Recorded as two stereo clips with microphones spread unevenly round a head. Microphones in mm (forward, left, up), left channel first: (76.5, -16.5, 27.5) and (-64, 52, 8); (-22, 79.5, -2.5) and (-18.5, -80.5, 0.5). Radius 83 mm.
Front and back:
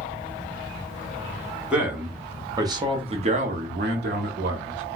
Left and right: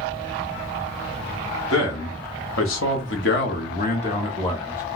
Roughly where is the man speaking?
Left.